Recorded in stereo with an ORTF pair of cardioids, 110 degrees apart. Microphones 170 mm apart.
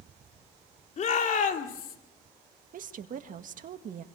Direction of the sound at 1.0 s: 45° left.